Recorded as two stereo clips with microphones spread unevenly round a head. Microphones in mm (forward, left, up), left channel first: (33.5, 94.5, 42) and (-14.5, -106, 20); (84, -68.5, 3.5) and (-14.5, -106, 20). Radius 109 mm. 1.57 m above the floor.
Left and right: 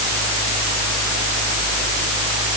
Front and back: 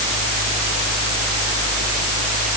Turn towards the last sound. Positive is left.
No sound to turn to.